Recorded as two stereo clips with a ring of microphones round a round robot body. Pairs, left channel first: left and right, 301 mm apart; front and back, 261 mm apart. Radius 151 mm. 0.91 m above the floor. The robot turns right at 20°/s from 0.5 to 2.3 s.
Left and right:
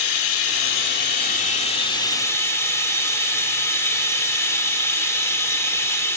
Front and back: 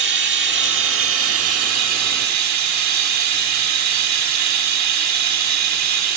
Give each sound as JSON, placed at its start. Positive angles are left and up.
{"t": 0.0, "sound": "running water", "azimuth_deg": 135, "distance_m": 1.2}